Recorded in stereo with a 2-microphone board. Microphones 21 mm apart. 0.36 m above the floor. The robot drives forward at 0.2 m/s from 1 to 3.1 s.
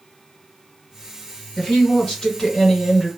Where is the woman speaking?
40° left (ahead or behind), 1.5 m.